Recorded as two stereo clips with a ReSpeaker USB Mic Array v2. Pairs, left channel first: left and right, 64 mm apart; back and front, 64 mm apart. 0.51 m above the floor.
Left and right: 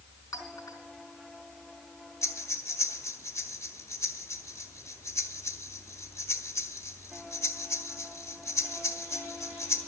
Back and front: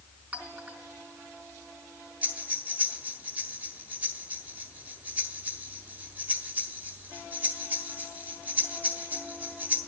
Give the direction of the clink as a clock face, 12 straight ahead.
10 o'clock.